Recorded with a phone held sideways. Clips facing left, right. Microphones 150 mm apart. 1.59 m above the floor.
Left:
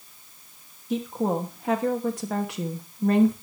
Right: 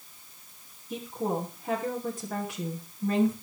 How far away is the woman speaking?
About 2.5 m.